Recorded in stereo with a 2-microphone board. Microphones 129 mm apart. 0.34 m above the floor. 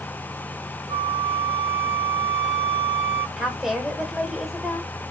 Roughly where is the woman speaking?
Centre.